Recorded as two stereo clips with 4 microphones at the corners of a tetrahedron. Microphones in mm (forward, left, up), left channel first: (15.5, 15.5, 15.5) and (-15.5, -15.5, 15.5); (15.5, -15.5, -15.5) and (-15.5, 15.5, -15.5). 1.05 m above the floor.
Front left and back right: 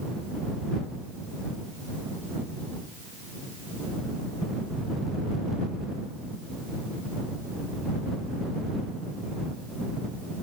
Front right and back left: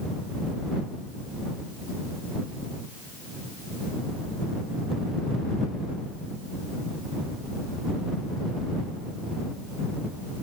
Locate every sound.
Only background noise.